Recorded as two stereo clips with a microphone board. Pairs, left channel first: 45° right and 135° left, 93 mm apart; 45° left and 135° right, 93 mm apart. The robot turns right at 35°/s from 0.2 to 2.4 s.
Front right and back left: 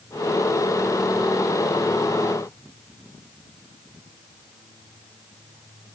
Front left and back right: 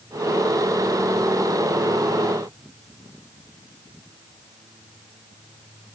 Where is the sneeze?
I don't hear a sneeze.